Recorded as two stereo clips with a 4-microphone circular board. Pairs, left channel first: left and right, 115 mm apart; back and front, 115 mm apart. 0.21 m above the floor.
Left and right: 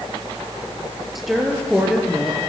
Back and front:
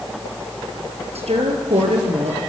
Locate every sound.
1.1 s a woman speaking: straight ahead, 5 m